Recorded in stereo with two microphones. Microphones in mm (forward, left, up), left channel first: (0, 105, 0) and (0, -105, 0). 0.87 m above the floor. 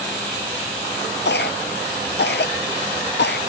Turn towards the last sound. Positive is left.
turn(degrees=60)  # may be behind; listen again after turning